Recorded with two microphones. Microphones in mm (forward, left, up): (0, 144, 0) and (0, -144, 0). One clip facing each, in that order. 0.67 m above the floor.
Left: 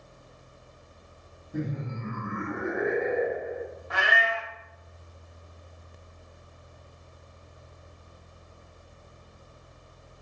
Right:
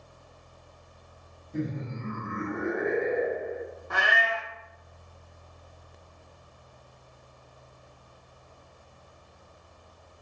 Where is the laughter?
5° left (ahead or behind), 1.0 m.